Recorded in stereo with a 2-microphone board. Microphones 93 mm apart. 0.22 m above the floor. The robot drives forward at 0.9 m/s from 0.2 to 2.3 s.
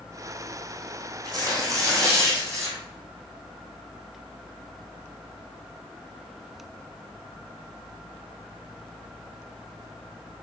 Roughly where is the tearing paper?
Right.